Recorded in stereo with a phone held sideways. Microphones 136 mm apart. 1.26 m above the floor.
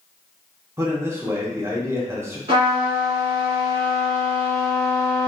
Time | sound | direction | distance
0.8 | a man speaking | 20° right (ahead or behind) | 0.7 m
2.5 | a trumpet | 45° right (ahead or behind) | 1.2 m